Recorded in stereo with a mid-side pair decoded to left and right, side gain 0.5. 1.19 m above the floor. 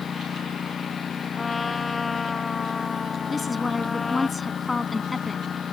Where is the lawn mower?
45° left.